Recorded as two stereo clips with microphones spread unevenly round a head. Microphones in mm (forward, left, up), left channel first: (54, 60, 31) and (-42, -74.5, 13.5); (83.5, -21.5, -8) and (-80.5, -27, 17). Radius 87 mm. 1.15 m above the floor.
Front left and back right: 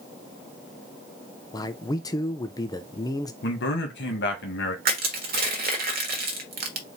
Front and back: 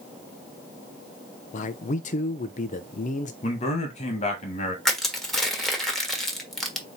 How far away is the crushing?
About 1.2 m.